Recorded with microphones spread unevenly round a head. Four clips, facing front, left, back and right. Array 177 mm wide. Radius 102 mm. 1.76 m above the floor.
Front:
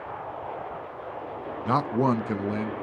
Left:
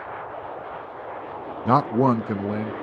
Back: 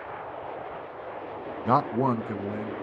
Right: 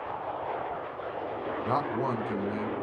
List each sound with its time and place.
1.6 s a man speaking: 80° left, 0.6 m; by 2.7 s 50° left, 1.4 m